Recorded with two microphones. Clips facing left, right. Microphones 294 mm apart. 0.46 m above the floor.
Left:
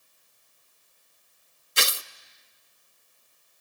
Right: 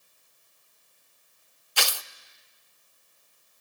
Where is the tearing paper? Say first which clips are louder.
Left 1 dB; 25° left (ahead or behind), 0.5 m.